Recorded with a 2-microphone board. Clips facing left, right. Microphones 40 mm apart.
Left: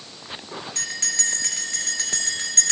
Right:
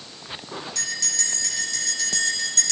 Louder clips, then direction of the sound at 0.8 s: Left 2 dB; 40° left (ahead or behind).